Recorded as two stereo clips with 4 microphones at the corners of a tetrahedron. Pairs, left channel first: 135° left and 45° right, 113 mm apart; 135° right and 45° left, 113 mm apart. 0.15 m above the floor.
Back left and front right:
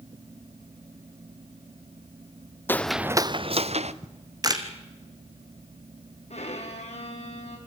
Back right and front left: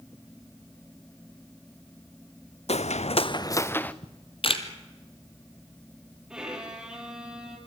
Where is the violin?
130° left, 4 m.